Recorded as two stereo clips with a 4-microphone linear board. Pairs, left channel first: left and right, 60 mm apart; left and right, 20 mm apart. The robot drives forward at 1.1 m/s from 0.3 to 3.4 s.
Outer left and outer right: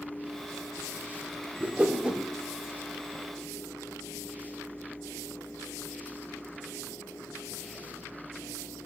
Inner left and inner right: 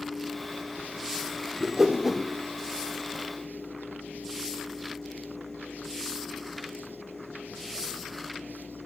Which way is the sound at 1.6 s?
20° right (ahead or behind).